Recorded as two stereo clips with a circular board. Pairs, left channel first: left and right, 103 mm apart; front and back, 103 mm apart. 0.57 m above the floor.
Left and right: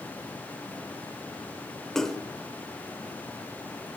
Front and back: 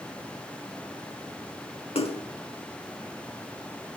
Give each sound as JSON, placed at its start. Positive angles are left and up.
{"t": 1.9, "sound": "a splash", "azimuth_deg": 5, "distance_m": 1.1}